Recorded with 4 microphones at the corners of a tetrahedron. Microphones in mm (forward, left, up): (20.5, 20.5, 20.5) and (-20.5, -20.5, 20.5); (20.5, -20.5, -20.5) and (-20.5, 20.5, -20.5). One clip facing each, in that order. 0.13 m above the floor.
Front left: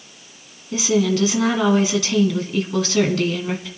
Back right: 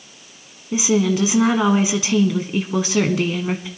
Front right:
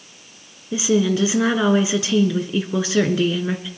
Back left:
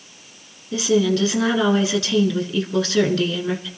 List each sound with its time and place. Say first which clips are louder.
0.7 s a woman speaking: back right 1 dB, even; 95° right, 1.2 m